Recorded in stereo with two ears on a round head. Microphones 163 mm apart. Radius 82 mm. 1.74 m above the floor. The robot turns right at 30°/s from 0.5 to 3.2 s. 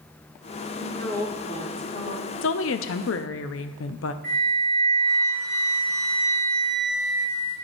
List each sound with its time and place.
0.7 s a woman speaking: 5° left, 2 m; by 2.3 s 55° left, 2 m
2.4 s a woman speaking: 70° left (ahead or behind), 0.6 m; by 4.1 s 80° left, 0.6 m
4.2 s a flute: 5° left (ahead or behind), 3.5 m